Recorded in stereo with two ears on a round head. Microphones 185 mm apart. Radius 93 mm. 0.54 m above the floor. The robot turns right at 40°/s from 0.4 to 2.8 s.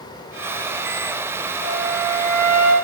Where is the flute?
175° right, 5 m; by 2.8 s 125° right, 5 m.